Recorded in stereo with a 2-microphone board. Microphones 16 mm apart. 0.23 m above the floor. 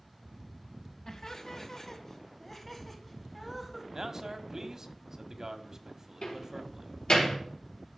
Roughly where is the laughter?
Left.